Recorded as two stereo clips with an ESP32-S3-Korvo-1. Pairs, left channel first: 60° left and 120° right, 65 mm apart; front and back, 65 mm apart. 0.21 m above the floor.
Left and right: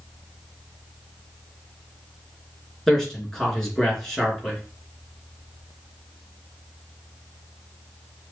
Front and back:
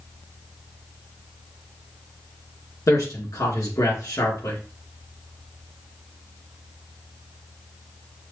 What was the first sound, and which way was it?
A man speaking, 25° right.